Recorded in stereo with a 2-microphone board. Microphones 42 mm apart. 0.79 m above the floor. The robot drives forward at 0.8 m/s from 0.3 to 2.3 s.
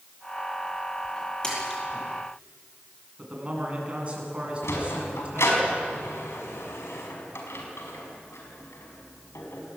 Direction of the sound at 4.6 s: 85° left.